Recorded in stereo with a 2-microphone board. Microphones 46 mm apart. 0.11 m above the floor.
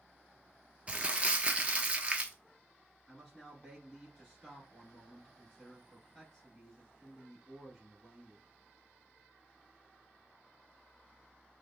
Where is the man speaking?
5° left (ahead or behind), 2.0 m.